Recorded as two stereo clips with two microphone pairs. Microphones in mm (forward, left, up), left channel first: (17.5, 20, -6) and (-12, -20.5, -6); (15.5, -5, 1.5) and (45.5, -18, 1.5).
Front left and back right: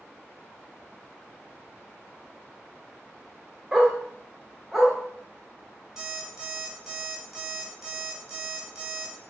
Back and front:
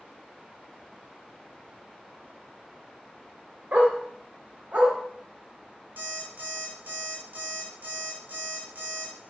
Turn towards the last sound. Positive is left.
turn(degrees=-40)